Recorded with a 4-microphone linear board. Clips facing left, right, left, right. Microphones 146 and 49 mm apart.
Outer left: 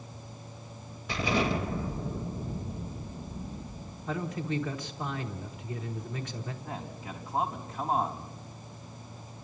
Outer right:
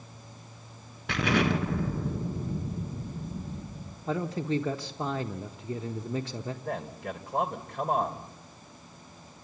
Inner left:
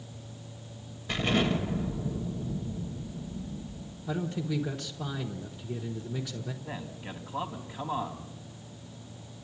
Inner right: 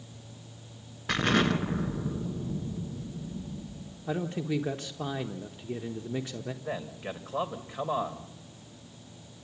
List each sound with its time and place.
1.1 s an explosion: 70° right (ahead or behind), 1.9 m
4.1 s a man speaking: 30° right (ahead or behind), 1.0 m
6.6 s a man speaking: 65° right (ahead or behind), 2.5 m